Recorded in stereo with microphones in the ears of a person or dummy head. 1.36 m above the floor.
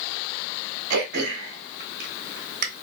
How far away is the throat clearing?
About 0.9 m.